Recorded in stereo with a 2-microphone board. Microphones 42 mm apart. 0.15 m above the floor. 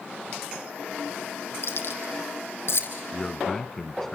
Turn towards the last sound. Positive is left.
turn(degrees=10)  # may be behind; listen again after turning